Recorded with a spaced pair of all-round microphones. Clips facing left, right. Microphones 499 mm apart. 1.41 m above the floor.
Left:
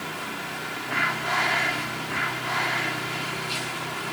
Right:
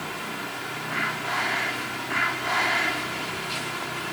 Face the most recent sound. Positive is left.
No sound to turn to.